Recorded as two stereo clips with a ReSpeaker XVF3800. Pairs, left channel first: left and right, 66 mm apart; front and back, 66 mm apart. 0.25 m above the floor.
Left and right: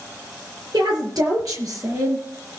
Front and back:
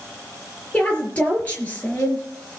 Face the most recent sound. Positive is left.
turn(degrees=-60)